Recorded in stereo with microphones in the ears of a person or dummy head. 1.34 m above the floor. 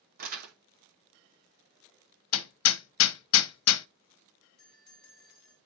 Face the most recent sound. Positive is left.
turn(degrees=-15)  # may be behind; listen again after turning